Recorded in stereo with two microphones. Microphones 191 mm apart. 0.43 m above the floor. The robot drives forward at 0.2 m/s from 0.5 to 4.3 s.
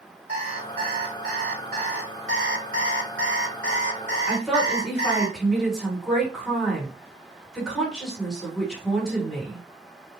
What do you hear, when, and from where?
0.3 s an alarm clock: 50° right (ahead or behind), 1.9 m; by 2.1 s 55° right (ahead or behind), 1.7 m
2.3 s an alarm clock: 85° right, 1.0 m; by 5.3 s 65° right (ahead or behind), 1.1 m
4.3 s a woman speaking: centre (ahead or behind), 1.8 m